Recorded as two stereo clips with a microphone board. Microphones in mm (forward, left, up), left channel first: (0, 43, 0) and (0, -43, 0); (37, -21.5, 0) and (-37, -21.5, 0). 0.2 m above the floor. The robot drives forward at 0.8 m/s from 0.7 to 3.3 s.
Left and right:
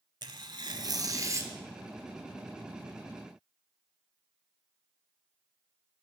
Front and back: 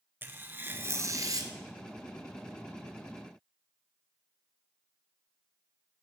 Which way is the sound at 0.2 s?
120° right.